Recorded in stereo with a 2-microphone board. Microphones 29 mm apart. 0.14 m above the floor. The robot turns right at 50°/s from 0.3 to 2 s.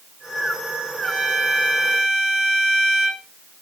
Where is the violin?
160° left, 7 m; by 3.2 s 155° right, 7 m.